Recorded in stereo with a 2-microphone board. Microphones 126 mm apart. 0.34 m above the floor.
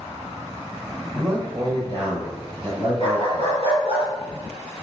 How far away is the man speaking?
About 1.6 m.